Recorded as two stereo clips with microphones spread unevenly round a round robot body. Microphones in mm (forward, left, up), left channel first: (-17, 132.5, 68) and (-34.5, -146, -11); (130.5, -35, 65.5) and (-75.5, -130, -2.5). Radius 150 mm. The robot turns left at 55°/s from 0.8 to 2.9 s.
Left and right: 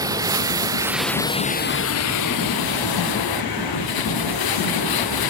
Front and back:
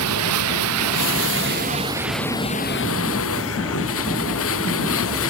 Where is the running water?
170° right; by 5.3 s 75° left.